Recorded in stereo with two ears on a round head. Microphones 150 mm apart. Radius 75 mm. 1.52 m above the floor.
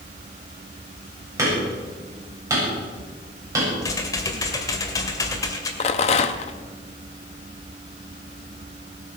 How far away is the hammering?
About 7.5 m.